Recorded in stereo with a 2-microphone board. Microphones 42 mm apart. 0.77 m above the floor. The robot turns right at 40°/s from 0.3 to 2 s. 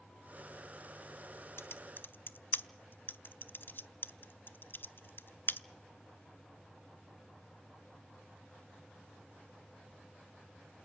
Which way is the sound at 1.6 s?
70° left (ahead or behind).